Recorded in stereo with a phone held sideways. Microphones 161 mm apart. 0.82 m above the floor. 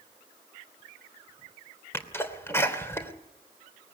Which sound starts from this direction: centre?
A sneeze, at 1.9 s.